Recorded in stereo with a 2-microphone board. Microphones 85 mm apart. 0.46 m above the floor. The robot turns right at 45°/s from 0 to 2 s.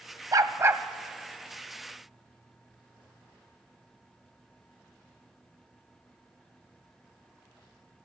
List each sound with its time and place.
0.3 s a dog barking: 50° right (ahead or behind), 1.1 m; by 0.8 s 25° right (ahead or behind), 1.1 m